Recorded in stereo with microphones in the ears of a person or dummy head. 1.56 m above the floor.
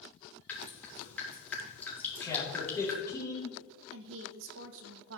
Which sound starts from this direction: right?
A woman speaking, at 3.9 s.